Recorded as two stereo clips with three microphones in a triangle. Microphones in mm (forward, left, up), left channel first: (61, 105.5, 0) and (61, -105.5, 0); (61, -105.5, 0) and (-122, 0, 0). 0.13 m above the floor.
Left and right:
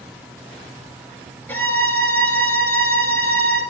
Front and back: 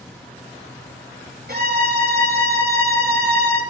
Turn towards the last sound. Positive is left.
turn(degrees=170)